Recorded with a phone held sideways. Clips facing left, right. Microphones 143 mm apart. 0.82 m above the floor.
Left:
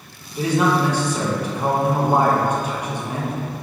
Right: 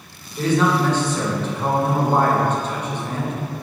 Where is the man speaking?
10° left (ahead or behind), 0.7 m.